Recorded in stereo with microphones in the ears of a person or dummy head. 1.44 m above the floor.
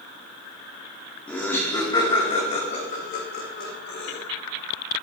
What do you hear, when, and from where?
1.3 s laughter: 5° left (ahead or behind), 2 m; by 4.2 s 65° left (ahead or behind), 3.5 m